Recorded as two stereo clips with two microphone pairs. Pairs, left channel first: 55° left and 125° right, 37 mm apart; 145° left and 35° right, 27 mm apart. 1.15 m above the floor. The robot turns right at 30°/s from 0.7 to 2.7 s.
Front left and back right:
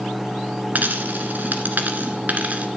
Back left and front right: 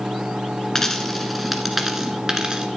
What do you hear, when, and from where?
0.8 s a dropped coin: 145° right, 1.7 m; by 2.7 s 90° right, 1.7 m